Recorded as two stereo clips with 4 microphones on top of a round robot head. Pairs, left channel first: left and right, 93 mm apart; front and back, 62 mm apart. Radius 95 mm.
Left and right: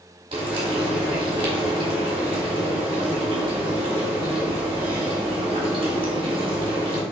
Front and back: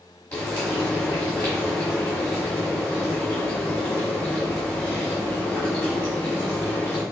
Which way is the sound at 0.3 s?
70° right.